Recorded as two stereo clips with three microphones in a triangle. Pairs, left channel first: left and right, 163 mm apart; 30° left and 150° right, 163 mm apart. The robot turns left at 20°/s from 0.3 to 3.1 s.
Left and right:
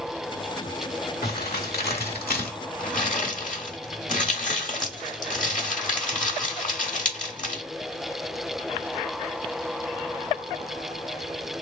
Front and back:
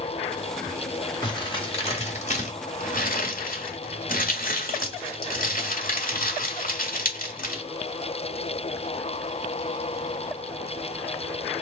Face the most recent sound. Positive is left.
turn(degrees=55)